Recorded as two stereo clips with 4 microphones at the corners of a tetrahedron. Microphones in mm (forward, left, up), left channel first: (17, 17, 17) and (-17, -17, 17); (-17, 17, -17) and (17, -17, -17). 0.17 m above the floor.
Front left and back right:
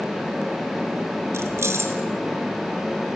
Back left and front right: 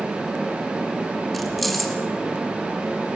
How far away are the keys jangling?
About 1.8 m.